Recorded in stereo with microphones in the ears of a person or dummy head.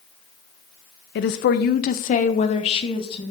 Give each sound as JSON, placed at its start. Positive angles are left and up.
{"t": 1.1, "sound": "a woman speaking", "side_deg": 50, "distance_m": 0.8}